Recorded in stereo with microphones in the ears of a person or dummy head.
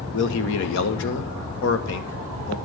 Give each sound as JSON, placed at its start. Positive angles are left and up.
{"t": 0.1, "sound": "a man speaking", "side_deg": 75, "distance_m": 1.6}